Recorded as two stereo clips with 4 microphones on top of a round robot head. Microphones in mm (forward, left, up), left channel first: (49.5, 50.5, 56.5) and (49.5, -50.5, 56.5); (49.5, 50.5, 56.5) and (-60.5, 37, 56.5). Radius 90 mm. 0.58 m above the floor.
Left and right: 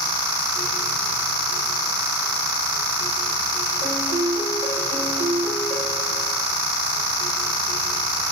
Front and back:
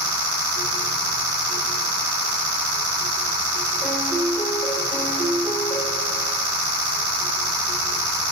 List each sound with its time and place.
3.8 s a piano: 60° right, 3.5 m